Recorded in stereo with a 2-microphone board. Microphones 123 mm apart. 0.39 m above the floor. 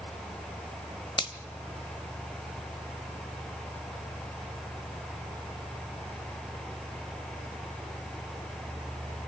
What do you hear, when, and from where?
1.2 s a finger snap: 40° left (ahead or behind), 1.2 m